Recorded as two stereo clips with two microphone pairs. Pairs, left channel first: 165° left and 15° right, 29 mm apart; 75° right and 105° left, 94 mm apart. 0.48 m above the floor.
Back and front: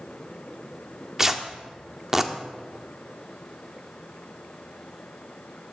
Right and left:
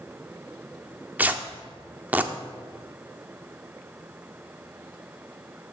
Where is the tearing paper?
45° left, 0.6 m.